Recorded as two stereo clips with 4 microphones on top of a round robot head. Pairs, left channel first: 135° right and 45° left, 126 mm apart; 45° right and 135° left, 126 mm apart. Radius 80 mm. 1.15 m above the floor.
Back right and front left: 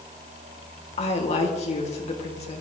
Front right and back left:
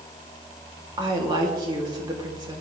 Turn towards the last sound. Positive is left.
turn(degrees=-170)